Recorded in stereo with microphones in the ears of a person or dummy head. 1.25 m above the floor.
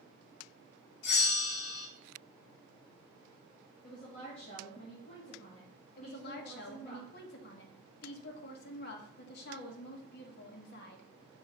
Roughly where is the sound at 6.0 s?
Left.